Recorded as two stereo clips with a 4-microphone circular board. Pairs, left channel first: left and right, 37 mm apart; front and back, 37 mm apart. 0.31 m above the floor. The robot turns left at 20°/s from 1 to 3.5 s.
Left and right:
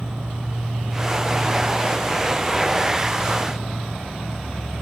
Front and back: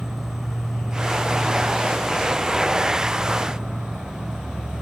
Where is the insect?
110° right, 1.7 m; by 4.8 s 160° right, 1.7 m.